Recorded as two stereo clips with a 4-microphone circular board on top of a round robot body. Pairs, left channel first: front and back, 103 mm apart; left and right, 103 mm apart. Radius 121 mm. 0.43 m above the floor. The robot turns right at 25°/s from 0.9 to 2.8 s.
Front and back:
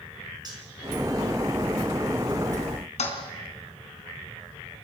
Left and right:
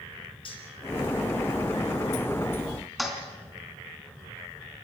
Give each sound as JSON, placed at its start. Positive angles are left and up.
{"t": 0.5, "sound": "cutlery clinking", "azimuth_deg": 130, "distance_m": 4.5}
{"t": 3.0, "sound": "a toilet flushing", "azimuth_deg": 0, "distance_m": 4.0}